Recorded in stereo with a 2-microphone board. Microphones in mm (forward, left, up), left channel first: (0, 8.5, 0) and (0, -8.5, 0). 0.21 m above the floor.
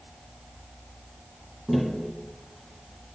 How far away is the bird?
No bird in this recording.